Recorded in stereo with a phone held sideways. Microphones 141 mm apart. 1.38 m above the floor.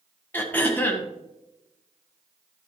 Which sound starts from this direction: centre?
Throat clearing, at 0.3 s.